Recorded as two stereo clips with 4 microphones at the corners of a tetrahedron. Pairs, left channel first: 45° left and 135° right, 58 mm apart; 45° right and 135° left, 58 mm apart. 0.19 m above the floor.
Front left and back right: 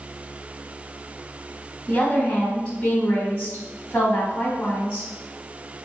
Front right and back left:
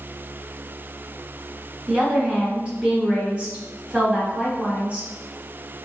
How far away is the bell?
No bell in this recording.